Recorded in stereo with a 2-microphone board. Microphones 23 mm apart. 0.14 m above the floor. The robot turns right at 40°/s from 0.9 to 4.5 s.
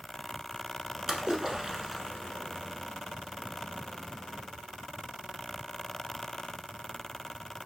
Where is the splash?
30° right (ahead or behind), 0.8 m; by 2.8 s 10° left (ahead or behind), 0.8 m.